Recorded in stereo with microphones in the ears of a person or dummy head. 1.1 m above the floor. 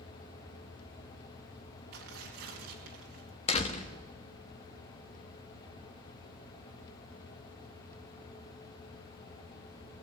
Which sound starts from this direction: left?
A door slam, at 3.5 s.